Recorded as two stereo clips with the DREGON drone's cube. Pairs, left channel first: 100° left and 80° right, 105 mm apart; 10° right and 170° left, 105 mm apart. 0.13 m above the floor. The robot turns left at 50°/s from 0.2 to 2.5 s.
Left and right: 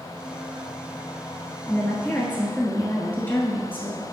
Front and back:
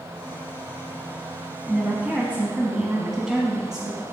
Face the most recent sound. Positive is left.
turn(degrees=95)